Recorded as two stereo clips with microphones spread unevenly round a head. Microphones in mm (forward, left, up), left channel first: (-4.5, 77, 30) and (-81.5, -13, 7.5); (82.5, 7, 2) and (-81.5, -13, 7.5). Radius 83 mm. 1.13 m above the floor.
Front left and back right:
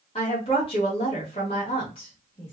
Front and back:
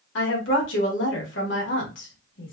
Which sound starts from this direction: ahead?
A woman speaking, at 0.1 s.